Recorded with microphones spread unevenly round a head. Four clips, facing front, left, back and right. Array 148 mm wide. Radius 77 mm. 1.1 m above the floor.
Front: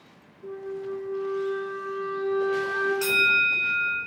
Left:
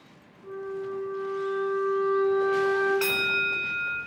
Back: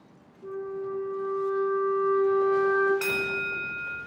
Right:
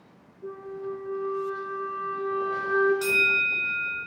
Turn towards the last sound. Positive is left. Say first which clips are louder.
# right 1 dB, front 5 dB
turn(degrees=100)